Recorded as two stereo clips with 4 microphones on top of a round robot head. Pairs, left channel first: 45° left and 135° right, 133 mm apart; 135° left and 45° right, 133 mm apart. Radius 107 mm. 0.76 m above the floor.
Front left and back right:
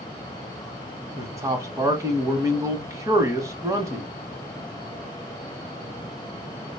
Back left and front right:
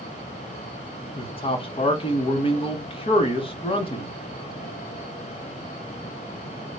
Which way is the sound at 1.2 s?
165° left.